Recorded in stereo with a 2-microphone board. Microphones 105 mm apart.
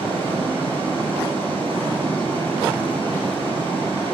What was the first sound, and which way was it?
Running water, 55° right (ahead or behind).